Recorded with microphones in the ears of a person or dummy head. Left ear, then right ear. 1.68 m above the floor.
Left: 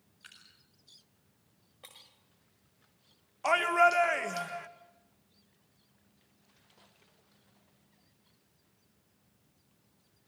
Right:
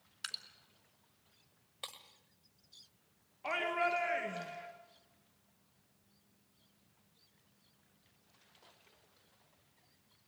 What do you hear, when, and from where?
0.2 s dripping: 70° right (ahead or behind), 2.5 m
1.8 s breaking glass: 30° right (ahead or behind), 1.6 m
3.4 s a shout: 40° left (ahead or behind), 1.7 m